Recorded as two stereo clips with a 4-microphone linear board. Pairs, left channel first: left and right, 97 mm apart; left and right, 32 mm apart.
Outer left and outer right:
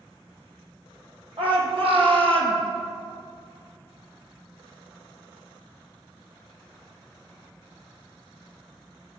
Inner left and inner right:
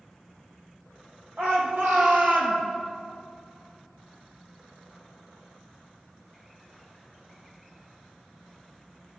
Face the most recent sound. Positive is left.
turn(degrees=-65)  # may be behind; listen again after turning